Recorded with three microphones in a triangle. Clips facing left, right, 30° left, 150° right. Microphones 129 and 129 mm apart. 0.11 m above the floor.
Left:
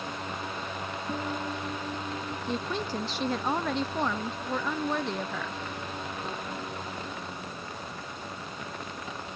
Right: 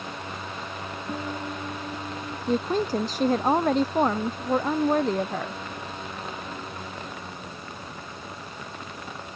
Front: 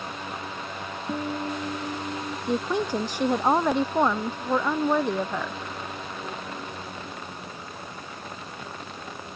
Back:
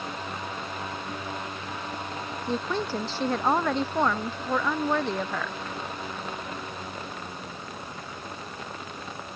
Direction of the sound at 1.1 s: 5° right.